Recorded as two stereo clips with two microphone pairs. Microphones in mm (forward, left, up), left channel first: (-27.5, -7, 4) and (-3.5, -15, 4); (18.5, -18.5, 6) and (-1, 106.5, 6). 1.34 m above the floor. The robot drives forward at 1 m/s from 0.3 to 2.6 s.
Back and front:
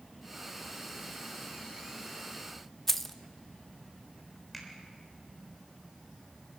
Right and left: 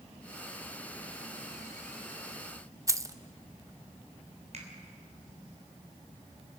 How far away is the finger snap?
About 4 m.